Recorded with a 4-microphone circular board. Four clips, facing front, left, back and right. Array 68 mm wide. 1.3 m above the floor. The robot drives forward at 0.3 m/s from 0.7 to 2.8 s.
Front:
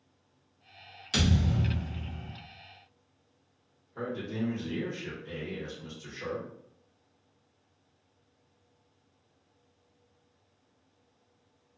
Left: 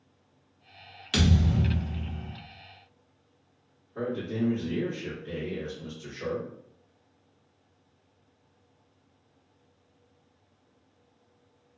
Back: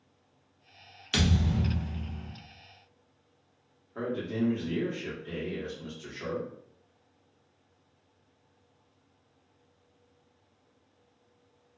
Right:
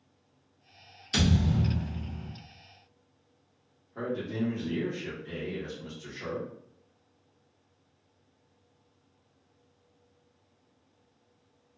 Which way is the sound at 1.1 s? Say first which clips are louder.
Left 1 dB, even; 135° left.